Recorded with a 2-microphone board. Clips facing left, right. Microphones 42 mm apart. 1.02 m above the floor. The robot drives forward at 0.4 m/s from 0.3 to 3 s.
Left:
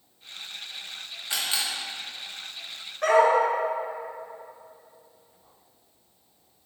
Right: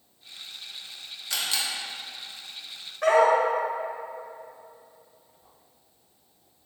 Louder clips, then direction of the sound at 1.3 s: Even; 20° left (ahead or behind).